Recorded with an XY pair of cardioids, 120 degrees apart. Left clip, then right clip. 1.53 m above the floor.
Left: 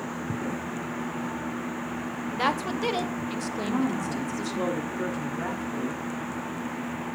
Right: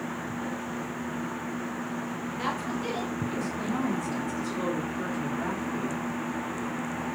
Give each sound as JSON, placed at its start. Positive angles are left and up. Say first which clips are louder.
{"t": 2.4, "sound": "a woman speaking", "louder": "left 6 dB", "azimuth_deg": 55, "distance_m": 1.8}
{"t": 3.6, "sound": "a woman speaking", "louder": "left 3 dB", "azimuth_deg": 15, "distance_m": 3.5}